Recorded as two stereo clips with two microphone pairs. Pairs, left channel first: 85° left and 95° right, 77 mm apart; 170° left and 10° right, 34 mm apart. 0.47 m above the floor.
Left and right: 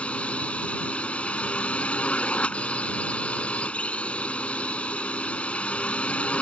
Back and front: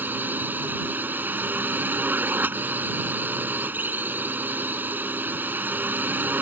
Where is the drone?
10° left.